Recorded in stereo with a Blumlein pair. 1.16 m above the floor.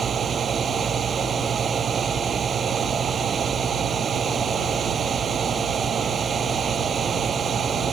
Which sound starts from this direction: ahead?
A fan, at 0.0 s.